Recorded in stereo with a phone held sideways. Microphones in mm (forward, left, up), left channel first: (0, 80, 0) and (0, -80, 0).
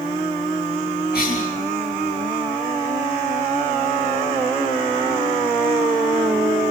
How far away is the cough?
About 5.5 m.